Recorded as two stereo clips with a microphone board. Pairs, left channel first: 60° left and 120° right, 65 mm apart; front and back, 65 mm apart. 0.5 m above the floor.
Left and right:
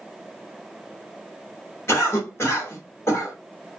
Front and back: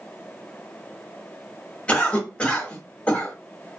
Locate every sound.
1.9 s a cough: 65° left, 1.4 m